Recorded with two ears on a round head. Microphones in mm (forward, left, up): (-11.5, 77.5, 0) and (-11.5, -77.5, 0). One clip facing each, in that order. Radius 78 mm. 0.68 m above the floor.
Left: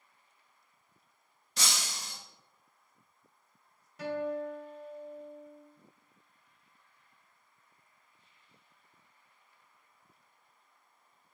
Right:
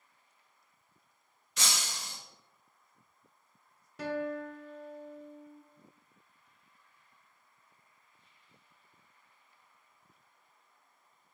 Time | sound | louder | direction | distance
1.6 | breaking glass | even | 30° left (ahead or behind) | 1.2 m
4.0 | a guitar | left 1 dB | 60° right (ahead or behind) | 0.9 m